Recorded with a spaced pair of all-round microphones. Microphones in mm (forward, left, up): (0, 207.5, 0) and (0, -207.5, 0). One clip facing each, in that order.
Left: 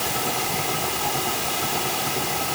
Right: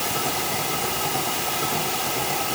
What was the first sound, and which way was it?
Only background noise.